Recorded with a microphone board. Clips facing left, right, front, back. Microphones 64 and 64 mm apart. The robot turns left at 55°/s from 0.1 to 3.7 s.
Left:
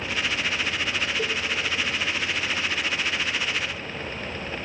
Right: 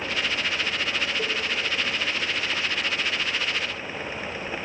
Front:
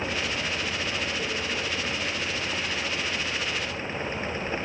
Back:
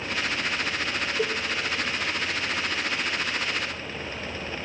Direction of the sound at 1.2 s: 175° left.